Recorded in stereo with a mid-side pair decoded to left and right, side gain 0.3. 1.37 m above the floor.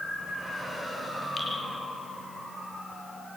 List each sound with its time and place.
1.4 s dripping: 55° left, 5.5 m